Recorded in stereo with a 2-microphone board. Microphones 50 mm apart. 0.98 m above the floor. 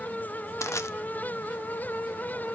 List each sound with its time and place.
0.6 s crushing: 70° left (ahead or behind), 0.6 m